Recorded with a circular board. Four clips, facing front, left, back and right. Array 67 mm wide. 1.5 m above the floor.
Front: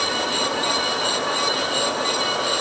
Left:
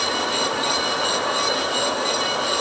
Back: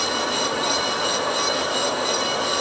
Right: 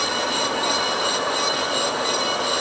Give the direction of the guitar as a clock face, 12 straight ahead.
I don't hear a guitar.